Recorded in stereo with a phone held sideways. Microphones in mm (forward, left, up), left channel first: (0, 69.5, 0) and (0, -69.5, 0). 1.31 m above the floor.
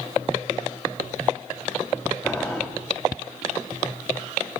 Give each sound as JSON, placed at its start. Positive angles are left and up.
{"t": 2.2, "sound": "boiling", "side_deg": 15, "distance_m": 1.3}